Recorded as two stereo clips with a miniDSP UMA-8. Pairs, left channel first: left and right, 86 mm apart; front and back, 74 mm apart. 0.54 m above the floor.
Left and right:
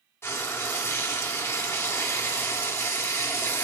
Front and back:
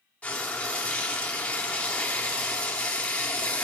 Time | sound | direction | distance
0.2 | frying | 60° left | 1.3 m